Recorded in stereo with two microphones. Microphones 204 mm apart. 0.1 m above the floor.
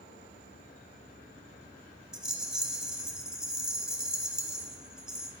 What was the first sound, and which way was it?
A rattle, 5° right (ahead or behind).